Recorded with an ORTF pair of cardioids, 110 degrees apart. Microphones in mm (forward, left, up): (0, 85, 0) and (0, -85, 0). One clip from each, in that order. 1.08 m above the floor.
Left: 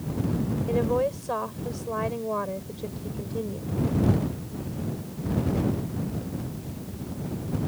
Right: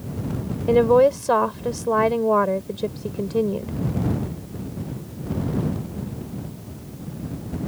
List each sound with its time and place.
0.7 s a woman speaking: 60° right